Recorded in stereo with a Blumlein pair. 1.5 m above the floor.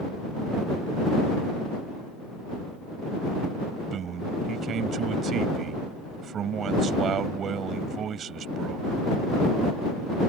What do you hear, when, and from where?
3.9 s a man speaking: 25° right